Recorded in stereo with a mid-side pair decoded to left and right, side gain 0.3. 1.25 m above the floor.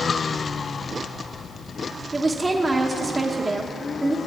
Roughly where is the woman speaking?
Ahead right.